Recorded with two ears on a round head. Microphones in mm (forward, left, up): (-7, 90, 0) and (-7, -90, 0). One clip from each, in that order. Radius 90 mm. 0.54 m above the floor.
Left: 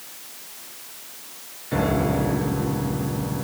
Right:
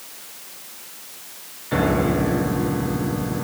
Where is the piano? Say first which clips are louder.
Right 2 dB; 35° right (ahead or behind), 4 m.